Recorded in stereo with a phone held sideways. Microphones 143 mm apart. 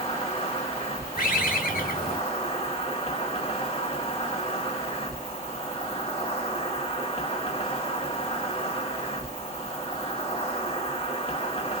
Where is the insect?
45° left (ahead or behind), 1.6 m.